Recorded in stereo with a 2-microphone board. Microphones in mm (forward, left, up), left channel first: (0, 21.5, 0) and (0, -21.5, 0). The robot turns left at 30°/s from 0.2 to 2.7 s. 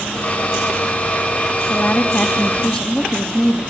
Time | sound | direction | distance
1.7 | a woman speaking | 55° left | 1.7 m